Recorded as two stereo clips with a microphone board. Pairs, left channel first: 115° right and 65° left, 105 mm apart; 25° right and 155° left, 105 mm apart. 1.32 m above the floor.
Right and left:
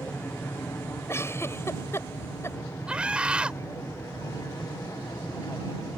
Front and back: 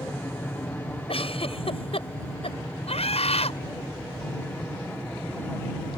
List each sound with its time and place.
0.0 s an aircraft: 70° right; by 6.0 s 85° right
1.1 s a giggle: 45° right
2.9 s a scream: 10° right